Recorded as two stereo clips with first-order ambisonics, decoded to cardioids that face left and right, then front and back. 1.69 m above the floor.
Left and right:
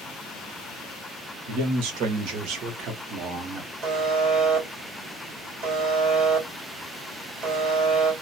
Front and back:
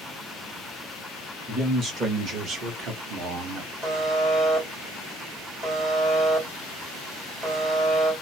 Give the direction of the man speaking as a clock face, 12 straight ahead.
4 o'clock.